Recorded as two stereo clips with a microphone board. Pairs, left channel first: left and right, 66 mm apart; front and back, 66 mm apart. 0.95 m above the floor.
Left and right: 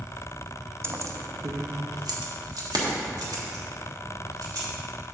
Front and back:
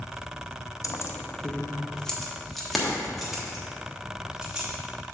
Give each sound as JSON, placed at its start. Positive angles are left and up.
{"t": 0.8, "sound": "keys jangling", "azimuth_deg": -40, "distance_m": 0.6}